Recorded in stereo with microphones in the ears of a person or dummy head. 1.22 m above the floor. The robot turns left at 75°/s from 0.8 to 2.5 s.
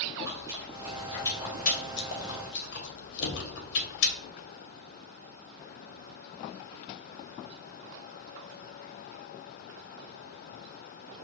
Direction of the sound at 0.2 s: 20° right (ahead or behind).